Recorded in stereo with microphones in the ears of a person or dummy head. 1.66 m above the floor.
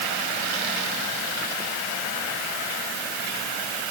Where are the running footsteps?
I don't hear running footsteps.